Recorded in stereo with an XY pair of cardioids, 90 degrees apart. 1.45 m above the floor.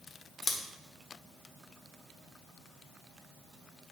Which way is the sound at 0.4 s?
40° left.